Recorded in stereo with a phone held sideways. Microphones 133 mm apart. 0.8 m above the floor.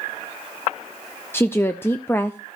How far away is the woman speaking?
About 0.5 m.